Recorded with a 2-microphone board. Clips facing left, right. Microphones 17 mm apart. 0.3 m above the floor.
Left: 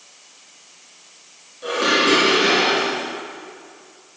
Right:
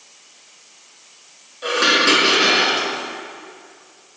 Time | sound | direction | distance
1.6 | dishes clattering | 30° right (ahead or behind) | 2 m